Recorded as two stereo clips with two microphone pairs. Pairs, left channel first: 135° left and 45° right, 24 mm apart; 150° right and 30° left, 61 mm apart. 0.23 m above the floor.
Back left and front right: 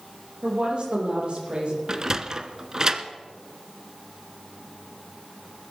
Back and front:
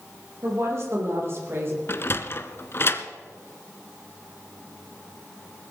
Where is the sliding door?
105° right, 1.2 m.